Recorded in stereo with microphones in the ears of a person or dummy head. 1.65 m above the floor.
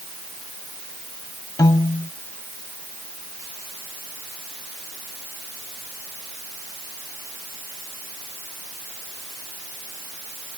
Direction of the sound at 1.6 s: 20° left (ahead or behind).